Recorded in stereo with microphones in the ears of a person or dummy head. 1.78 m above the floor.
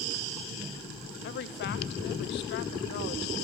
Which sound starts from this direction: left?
A woman speaking, at 1.2 s.